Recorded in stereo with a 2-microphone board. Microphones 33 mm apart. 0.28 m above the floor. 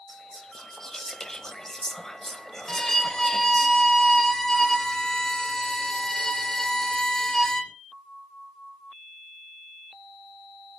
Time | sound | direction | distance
0.1 | whispering | 15° left (ahead or behind) | 1.1 m
2.7 | a violin | 15° left (ahead or behind) | 1.3 m